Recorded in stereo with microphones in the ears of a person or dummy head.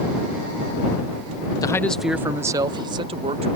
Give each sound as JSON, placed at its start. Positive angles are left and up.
{"t": 1.6, "sound": "a man speaking", "side_deg": 20}